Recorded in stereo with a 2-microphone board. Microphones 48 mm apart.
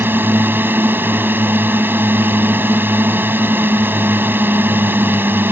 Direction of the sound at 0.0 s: 50° right (ahead or behind).